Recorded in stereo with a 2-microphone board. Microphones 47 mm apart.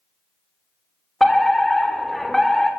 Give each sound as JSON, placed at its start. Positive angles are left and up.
{"t": 1.2, "sound": "a fire alarm", "side_deg": 5, "distance_m": 3.0}